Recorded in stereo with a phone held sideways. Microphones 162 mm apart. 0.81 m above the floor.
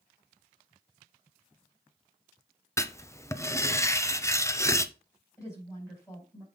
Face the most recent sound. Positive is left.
turn(degrees=15)  # may be behind; listen again after turning